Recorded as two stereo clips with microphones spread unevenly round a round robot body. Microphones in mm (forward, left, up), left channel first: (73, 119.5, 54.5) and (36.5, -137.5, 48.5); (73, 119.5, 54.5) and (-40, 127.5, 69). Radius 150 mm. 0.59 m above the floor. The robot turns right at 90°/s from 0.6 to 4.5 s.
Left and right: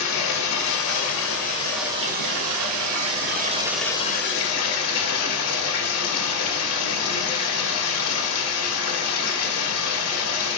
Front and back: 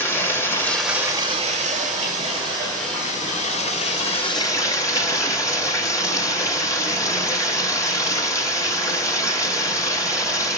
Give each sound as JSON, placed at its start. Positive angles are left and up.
{"t": 0.0, "sound": "running water", "azimuth_deg": 65, "distance_m": 2.0}